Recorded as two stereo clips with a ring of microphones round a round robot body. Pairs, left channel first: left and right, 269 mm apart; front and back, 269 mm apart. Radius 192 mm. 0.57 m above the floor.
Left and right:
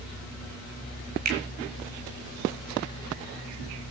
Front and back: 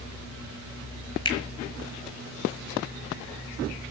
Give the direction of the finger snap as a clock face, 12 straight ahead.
2 o'clock.